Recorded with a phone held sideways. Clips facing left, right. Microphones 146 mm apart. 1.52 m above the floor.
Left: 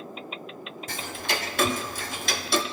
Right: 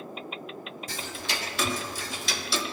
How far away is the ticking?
About 0.5 m.